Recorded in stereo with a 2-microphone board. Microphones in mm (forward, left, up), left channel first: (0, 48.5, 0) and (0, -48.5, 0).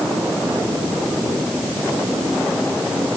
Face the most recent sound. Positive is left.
No sound to turn to.